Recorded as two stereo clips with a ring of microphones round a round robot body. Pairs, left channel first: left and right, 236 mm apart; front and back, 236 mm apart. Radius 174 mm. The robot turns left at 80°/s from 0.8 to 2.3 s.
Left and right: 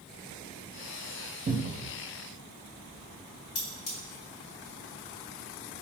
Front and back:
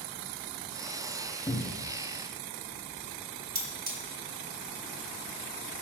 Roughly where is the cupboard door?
Right.